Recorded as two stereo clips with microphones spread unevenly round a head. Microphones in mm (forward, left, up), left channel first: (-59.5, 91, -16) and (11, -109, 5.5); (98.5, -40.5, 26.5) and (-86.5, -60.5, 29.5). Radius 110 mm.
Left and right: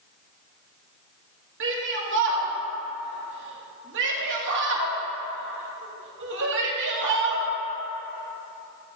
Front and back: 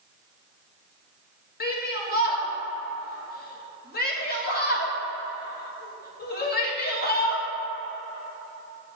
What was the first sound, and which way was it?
A shout, 30° right.